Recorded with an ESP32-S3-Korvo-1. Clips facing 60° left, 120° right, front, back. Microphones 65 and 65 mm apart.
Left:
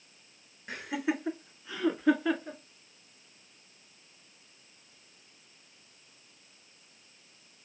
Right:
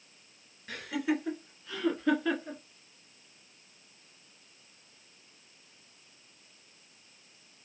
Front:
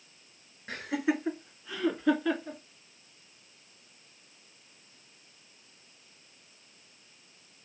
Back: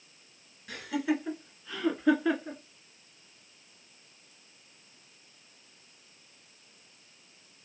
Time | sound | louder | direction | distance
0.7 | laughter | right 1 dB, even | 15° left | 1.3 m